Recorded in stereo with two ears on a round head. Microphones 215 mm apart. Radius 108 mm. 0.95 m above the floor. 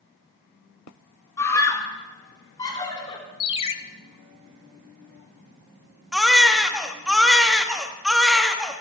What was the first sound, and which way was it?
A scream, 10° left (ahead or behind).